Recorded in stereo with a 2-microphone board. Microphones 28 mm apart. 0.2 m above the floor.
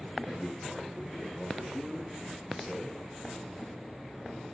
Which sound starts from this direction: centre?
A man speaking, at 0.2 s.